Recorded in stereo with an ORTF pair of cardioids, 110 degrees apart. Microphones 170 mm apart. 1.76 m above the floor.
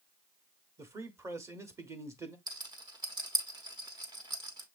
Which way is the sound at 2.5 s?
25° right.